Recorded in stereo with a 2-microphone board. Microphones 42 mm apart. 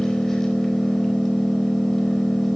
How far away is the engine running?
About 4.5 m.